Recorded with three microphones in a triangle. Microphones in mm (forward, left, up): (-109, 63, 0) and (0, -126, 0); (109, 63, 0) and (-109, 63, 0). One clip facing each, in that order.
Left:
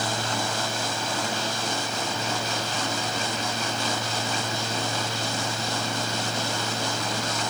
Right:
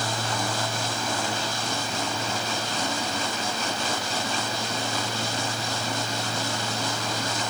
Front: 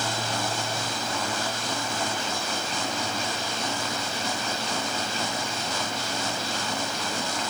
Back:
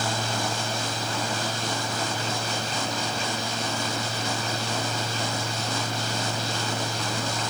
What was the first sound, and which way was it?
Only background noise.